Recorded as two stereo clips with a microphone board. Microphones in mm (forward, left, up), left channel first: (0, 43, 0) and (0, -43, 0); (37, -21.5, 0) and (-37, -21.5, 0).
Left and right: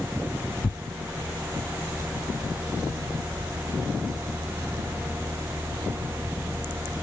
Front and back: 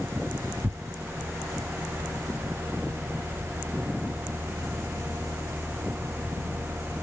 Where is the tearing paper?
120° left, 0.6 m.